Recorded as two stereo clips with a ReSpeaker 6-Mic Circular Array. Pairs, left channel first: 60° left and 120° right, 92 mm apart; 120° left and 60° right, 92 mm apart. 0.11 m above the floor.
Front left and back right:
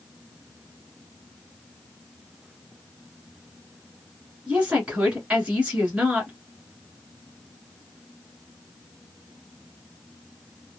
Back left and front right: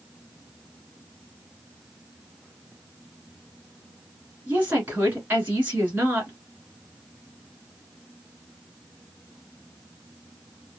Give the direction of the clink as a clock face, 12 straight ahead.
No clink in this recording.